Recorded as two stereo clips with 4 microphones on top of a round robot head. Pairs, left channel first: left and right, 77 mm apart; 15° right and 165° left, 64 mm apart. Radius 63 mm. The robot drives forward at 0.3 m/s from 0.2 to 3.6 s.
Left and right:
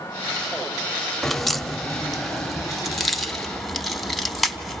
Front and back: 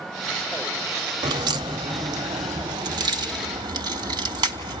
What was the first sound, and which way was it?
A crack, 175° left.